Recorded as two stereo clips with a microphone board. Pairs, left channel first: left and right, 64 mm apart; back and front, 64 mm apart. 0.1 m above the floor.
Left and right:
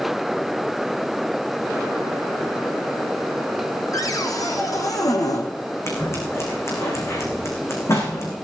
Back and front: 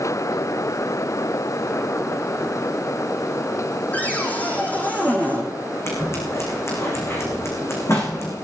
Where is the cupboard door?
115° left, 3 m.